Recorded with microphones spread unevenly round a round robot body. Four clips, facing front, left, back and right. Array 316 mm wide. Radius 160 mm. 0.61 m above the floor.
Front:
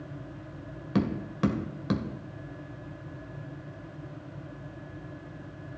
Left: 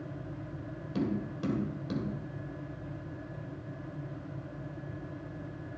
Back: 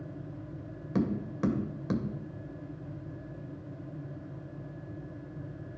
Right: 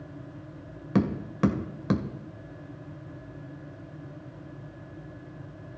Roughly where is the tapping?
Right.